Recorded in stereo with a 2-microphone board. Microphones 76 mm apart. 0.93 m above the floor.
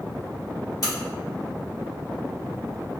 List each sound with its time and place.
0.8 s a crack: 50° left (ahead or behind), 0.8 m